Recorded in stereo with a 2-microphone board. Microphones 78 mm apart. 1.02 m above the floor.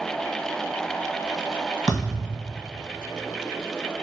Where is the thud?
10° left (ahead or behind), 1.6 m.